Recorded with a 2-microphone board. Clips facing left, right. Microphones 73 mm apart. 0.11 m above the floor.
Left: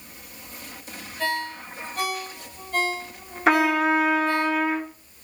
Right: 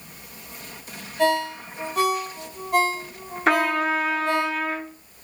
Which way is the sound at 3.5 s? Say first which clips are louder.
Left 1 dB; 5° left (ahead or behind).